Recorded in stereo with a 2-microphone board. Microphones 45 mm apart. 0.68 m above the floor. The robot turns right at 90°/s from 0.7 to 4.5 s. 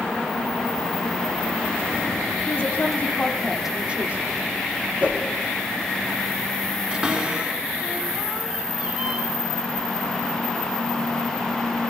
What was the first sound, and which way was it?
A woman speaking, 80° left.